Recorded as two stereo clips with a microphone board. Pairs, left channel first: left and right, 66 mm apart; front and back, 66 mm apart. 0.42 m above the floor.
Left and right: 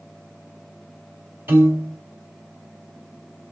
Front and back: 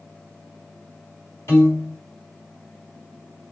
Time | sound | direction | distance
1.5 | a piano | 45° right | 3 m